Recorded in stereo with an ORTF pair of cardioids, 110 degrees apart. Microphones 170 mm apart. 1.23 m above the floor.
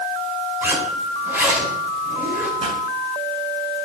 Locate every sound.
0.6 s a zipper: 15° right, 5.5 m
2.6 s a pop: 40° right, 5 m